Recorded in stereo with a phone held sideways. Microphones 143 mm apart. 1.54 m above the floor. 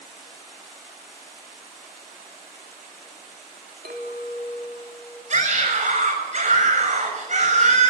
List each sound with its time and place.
3.9 s a clink: 80° right, 3 m
5.3 s a scream: 55° right (ahead or behind), 7 m